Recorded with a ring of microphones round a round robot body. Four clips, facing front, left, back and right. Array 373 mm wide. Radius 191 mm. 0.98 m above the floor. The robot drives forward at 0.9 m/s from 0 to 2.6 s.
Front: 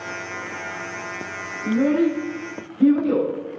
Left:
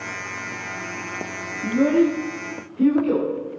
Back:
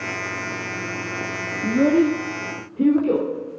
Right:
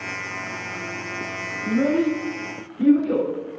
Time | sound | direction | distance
1.6 | a child speaking | 160° left | 1.2 m